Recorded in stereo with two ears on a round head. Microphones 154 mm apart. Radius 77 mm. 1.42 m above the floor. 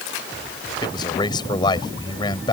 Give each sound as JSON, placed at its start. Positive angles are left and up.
{"t": 0.8, "sound": "a man speaking", "side_deg": 25}